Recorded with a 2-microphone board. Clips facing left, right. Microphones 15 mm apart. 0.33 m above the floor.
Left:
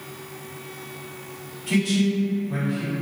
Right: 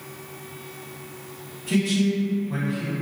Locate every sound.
1.7 s a man speaking: 35° left (ahead or behind), 1.4 m; by 2.9 s centre (ahead or behind), 1.3 m